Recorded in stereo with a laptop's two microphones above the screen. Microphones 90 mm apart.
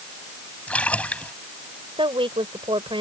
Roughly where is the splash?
Centre.